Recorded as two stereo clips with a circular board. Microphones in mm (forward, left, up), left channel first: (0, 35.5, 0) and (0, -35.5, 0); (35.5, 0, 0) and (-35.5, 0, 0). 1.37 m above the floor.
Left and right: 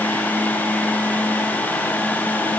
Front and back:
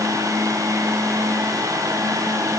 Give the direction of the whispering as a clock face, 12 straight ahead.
I don't hear whispering.